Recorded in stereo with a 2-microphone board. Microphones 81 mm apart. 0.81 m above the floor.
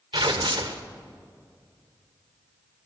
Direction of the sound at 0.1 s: 80° right.